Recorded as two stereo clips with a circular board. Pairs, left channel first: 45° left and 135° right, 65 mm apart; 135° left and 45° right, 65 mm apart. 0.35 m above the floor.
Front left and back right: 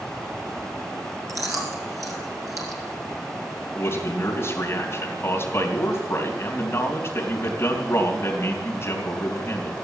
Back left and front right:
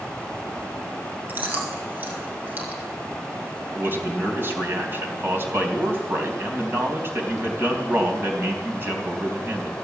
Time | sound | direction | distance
1.3 | chewing | 105° right | 2.5 m
3.8 | a man speaking | 5° left | 3 m